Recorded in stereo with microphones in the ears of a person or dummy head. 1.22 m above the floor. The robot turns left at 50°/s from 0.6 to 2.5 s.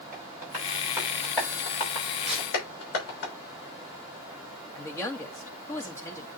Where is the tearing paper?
5° right (ahead or behind), 2 m; by 2.5 s 5° left (ahead or behind), 2 m.